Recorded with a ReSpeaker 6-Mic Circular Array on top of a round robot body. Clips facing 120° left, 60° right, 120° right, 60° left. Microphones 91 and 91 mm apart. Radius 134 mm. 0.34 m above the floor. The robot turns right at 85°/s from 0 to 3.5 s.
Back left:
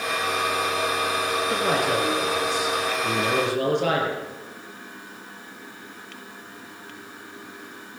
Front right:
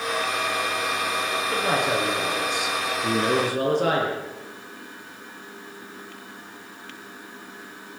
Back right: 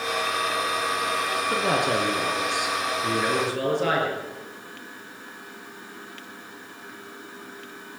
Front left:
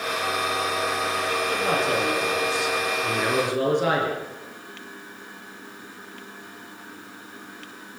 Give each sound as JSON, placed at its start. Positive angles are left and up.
{"t": 1.5, "sound": "a man speaking", "azimuth_deg": 180, "distance_m": 7.0}